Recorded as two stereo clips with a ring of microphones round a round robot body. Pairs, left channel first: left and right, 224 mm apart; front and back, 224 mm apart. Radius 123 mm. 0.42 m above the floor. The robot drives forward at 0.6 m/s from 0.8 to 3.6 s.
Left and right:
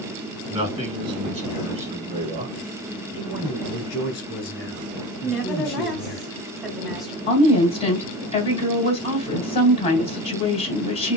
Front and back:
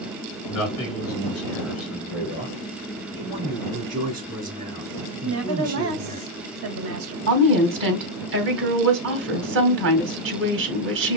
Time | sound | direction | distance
0.5 | a man speaking | 20° right | 3.5 m
3.1 | a man speaking | 125° left | 3 m
5.2 | a woman speaking | straight behind | 1.9 m
7.3 | a woman speaking | 155° left | 2.5 m